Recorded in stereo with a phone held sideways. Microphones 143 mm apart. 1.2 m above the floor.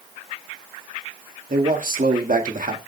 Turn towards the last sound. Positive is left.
turn(degrees=-70)  # may be behind; listen again after turning